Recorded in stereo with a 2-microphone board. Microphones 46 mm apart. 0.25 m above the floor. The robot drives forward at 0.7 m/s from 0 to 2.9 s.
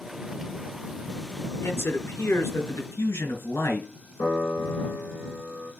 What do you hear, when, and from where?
1.6 s a man speaking: 70° left (ahead or behind), 3.5 m; by 3.9 s 65° left (ahead or behind), 3.5 m
4.2 s a piano: 75° left (ahead or behind), 6 m